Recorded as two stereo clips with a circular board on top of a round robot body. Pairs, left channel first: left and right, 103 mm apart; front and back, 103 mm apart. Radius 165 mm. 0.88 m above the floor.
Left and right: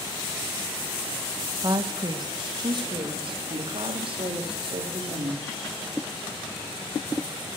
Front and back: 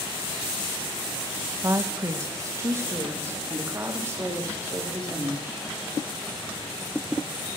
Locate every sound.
1.6 s a woman speaking: 130° right, 1.3 m; by 5.6 s 115° right, 3.5 m